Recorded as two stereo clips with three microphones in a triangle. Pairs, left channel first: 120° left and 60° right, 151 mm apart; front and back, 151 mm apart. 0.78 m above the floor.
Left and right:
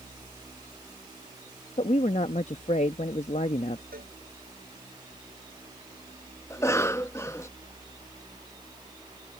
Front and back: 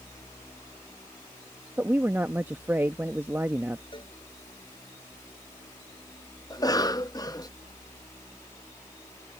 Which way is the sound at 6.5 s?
55° left.